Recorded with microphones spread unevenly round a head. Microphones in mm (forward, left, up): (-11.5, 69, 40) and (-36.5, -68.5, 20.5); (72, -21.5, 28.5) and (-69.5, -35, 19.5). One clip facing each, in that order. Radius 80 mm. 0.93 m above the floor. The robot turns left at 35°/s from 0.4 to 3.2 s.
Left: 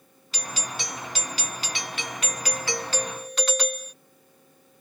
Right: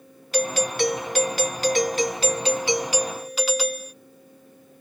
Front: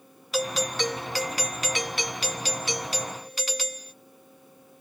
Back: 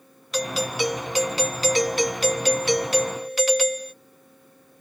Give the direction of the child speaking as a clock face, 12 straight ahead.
No child speaking in this recording.